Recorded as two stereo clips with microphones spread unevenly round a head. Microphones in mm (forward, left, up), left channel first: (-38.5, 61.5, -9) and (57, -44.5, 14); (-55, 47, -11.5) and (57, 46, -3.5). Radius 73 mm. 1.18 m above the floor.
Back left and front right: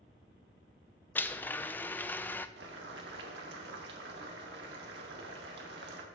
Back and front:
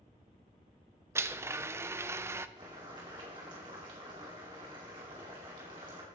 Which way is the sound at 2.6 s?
65° right.